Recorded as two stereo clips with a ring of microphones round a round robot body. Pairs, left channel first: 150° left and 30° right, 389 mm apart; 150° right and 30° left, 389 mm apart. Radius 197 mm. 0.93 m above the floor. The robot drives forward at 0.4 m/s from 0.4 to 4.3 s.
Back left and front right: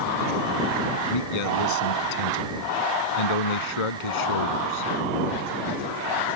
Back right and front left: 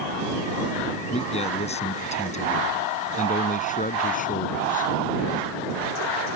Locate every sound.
1.1 s a man speaking: 135° left; by 4.9 s 140° left